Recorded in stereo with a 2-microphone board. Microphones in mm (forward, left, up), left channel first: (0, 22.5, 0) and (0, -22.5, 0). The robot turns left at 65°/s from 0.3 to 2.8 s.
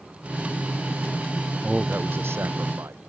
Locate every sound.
1.6 s a man speaking: 20° right; by 3.0 s 95° right